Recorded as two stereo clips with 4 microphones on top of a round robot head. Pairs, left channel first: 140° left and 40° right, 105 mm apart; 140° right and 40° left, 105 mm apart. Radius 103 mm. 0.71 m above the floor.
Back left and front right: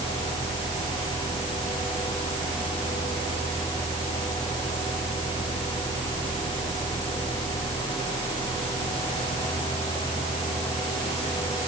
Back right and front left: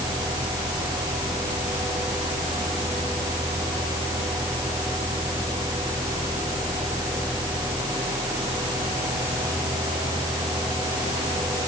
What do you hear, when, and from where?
Only background noise.